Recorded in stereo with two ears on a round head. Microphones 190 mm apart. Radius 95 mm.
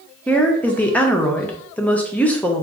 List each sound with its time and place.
0.3 s a woman speaking: 5° left (ahead or behind), 0.5 m